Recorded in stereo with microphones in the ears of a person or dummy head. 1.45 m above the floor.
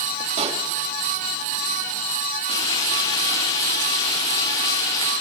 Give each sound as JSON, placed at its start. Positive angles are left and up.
{"t": 0.4, "sound": "a pop", "side_deg": -30, "distance_m": 1.8}
{"t": 2.5, "sound": "frying", "side_deg": 30, "distance_m": 6.0}